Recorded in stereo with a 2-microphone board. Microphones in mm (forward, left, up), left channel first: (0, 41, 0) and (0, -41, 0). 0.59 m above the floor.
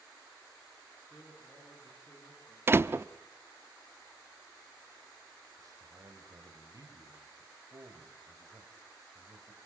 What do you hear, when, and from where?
1.0 s a man speaking: 15° left (ahead or behind), 8 m
2.7 s a door slam: 30° right (ahead or behind), 0.5 m
5.6 s a man speaking: 50° right (ahead or behind), 4 m